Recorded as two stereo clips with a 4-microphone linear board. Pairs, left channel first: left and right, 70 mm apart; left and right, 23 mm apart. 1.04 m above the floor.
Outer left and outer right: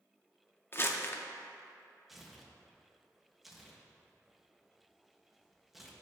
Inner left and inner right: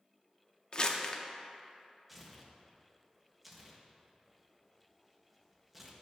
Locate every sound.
0.7 s crumpling: 35° left (ahead or behind), 0.6 m
2.1 s tearing paper: 5° right (ahead or behind), 0.9 m